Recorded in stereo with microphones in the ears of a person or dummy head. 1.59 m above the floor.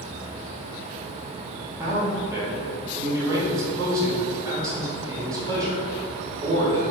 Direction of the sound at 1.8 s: 15° right (ahead or behind).